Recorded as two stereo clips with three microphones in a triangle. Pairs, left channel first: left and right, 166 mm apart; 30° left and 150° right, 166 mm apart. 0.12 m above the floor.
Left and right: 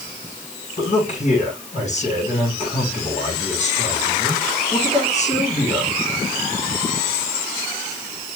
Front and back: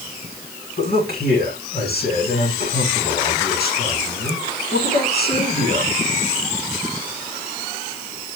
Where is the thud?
I don't hear a thud.